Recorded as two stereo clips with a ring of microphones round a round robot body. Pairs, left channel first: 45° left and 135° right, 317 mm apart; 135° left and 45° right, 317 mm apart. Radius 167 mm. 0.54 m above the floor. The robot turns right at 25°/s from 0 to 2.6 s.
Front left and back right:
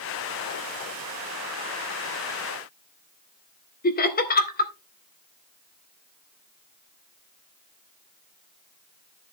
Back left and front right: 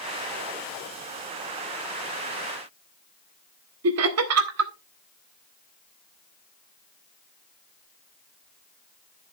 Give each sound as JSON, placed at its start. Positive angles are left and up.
{"t": 3.8, "sound": "laughter", "azimuth_deg": -15, "distance_m": 1.8}